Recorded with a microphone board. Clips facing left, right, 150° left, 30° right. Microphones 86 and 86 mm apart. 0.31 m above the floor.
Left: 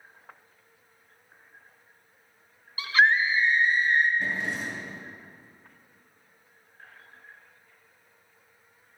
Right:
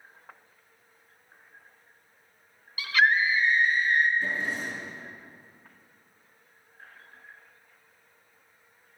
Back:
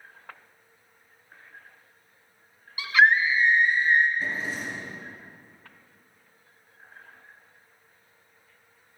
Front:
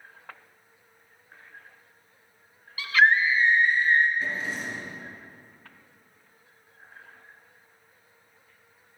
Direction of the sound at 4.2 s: 65° left.